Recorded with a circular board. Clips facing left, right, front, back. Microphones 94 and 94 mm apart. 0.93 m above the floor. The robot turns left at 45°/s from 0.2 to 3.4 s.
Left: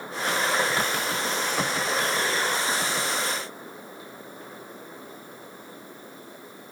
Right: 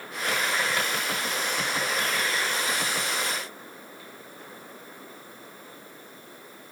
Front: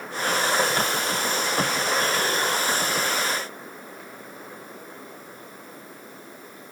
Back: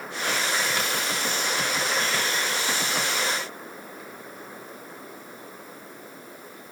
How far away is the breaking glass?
I don't hear breaking glass.